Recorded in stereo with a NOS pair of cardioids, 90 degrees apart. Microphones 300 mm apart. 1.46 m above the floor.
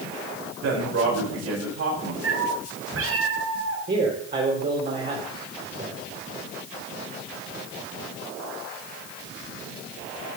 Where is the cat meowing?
50° right, 4 m.